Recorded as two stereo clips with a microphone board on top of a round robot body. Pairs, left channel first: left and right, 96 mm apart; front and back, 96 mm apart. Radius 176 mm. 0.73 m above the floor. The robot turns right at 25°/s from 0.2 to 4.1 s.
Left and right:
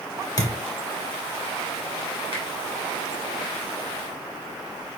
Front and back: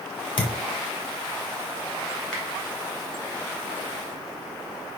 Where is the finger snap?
80° left, 3.5 m.